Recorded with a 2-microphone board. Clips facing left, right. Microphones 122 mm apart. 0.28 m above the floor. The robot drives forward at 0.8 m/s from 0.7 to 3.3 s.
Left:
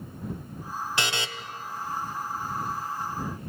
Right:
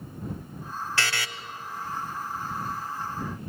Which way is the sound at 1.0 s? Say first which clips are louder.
Left 1 dB; 15° left (ahead or behind).